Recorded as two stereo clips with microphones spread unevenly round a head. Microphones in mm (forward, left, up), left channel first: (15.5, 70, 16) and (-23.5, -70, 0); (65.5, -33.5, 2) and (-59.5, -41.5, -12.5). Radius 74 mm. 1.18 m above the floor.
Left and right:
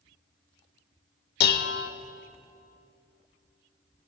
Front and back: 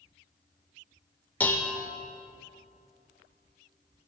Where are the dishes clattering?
80° left, 0.5 m.